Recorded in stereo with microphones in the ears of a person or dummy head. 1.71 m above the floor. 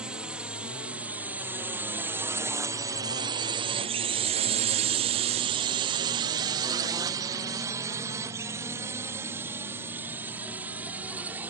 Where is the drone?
5° right (ahead or behind); by 11.5 s 10° right (ahead or behind).